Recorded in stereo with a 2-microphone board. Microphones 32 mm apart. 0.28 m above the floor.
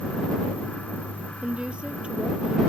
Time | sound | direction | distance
1.4 | a woman speaking | 35° right (ahead or behind) | ?